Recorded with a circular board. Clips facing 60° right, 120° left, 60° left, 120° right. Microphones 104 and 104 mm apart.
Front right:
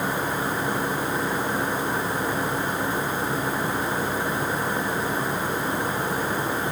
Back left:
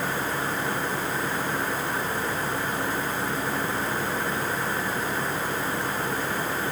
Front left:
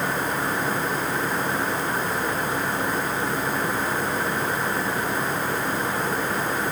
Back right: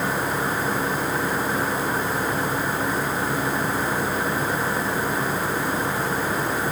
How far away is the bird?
I don't hear a bird.